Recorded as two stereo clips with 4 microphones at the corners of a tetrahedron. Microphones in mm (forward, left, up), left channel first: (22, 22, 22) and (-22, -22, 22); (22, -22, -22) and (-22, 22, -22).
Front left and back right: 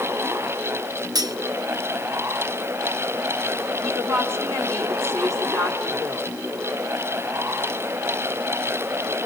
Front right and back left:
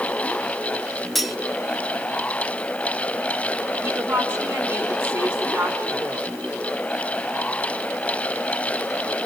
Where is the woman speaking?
165° right, 4 m.